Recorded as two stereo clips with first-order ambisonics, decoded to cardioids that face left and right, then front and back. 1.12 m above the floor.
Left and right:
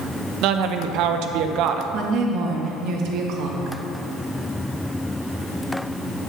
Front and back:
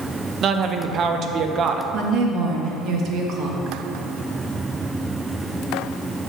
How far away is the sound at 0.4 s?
About 0.6 m.